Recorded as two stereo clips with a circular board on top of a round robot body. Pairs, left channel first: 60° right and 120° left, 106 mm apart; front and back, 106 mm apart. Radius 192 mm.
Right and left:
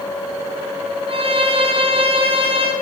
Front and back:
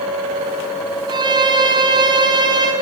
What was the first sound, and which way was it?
A violin, 140° left.